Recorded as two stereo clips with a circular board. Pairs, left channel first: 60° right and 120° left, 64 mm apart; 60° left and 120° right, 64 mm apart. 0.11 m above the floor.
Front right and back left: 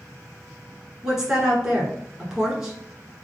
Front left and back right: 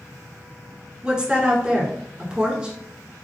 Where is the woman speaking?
170° right, 1.2 m.